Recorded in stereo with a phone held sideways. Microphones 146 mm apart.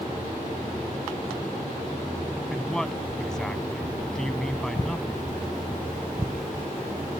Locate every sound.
2.5 s a man speaking: 5° left (ahead or behind)